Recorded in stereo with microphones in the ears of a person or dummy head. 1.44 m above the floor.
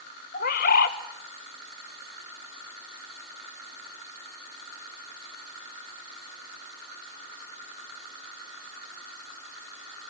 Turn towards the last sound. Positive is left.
turn(degrees=45)  # may be behind; listen again after turning